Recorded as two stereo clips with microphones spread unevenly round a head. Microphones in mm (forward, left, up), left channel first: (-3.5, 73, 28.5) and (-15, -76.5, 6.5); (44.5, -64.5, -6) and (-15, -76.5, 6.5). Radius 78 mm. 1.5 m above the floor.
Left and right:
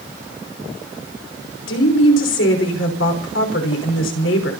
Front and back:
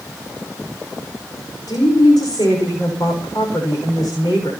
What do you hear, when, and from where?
1.7 s a woman speaking: 75° left, 6 m